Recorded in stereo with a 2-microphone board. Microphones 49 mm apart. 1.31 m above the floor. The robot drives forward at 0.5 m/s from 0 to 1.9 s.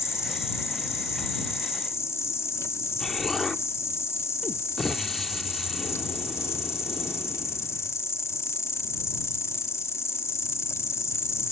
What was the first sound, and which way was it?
An insect, 85° left.